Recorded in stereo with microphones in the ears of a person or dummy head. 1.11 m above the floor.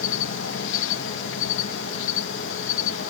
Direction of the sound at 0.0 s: 65° left (ahead or behind).